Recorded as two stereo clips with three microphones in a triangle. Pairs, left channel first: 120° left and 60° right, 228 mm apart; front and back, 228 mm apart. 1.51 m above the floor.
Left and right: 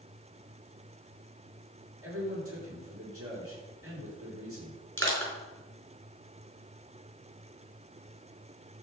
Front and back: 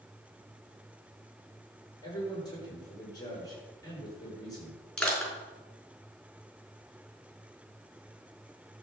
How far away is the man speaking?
About 6.5 m.